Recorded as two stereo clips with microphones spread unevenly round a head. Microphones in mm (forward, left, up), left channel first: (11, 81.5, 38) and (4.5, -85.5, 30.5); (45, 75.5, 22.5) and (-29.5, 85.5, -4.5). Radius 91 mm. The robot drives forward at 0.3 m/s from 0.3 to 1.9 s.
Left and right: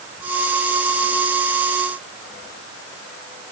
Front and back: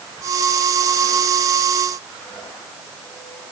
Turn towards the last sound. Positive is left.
No sound to turn to.